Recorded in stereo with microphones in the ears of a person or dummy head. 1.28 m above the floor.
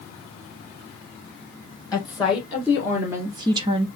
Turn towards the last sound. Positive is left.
turn(degrees=-30)  # may be behind; listen again after turning